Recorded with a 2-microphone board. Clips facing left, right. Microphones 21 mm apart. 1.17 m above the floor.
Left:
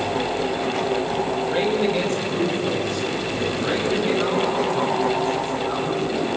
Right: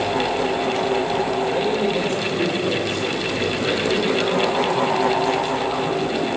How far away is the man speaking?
About 4.5 m.